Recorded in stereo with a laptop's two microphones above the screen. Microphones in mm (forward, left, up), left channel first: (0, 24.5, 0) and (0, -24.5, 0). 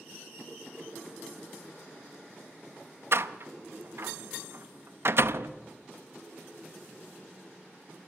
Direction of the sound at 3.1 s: 55° right (ahead or behind).